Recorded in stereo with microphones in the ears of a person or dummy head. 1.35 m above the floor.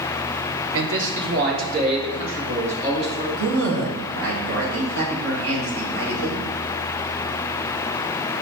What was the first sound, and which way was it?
A man speaking, 80° right.